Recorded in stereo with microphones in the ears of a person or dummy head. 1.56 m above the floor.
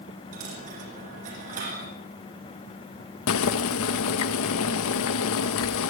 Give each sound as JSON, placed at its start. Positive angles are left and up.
{"t": 0.3, "sound": "a dropped coin", "side_deg": -40, "distance_m": 5.5}
{"t": 3.3, "sound": "boiling", "side_deg": 75, "distance_m": 1.5}